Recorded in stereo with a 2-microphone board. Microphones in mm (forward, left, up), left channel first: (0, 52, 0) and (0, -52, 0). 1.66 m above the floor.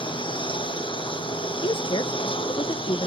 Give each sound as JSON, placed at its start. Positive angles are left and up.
{"t": 0.0, "sound": "a lawn mower", "side_deg": 60}
{"t": 1.6, "sound": "a woman speaking", "side_deg": 60}